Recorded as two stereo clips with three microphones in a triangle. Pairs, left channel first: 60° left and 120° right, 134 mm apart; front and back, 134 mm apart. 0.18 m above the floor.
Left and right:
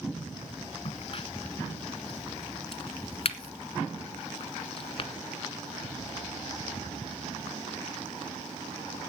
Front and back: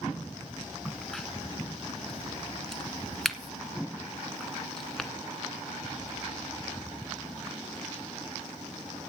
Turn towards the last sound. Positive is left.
turn(degrees=90)